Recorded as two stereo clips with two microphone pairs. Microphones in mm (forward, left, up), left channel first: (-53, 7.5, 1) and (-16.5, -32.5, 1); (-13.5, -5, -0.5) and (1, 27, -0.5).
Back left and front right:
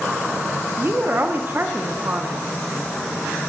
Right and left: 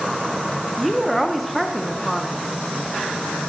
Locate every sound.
0.8 s a woman speaking: 25° right, 0.7 m